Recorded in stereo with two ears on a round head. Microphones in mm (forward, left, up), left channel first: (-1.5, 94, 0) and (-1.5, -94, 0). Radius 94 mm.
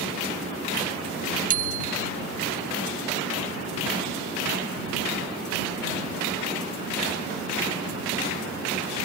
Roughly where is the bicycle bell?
Right.